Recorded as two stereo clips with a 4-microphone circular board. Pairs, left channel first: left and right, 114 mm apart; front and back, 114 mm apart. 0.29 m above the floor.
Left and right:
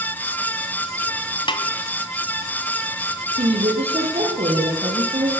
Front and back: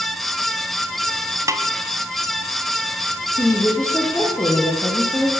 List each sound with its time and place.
1.5 s a snare drum: 125° left, 2 m
3.4 s a woman speaking: 70° right, 8 m